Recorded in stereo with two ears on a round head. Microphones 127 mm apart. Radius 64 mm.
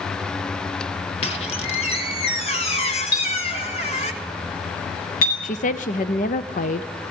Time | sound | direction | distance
1.2 | a squeak | 45° left (ahead or behind) | 1.7 m
3.1 | a clink | 65° left (ahead or behind) | 8 m
5.4 | a woman speaking | 55° left (ahead or behind) | 0.6 m